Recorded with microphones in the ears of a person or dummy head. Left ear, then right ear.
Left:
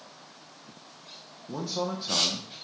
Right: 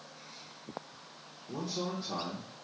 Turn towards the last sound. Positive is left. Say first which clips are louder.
# left 5 dB
turn(degrees=30)  # may be behind; listen again after turning